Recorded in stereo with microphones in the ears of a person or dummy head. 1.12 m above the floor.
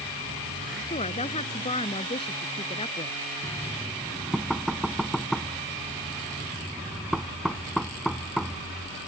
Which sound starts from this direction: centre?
Knocking, at 3.4 s.